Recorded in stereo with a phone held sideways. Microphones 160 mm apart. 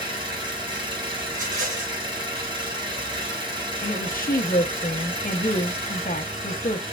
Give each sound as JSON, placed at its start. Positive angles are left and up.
{"t": 0.0, "sound": "an engine running", "side_deg": -30, "distance_m": 3.0}
{"t": 1.3, "sound": "a rattle", "side_deg": -55, "distance_m": 4.0}
{"t": 3.8, "sound": "a woman speaking", "side_deg": 60, "distance_m": 0.8}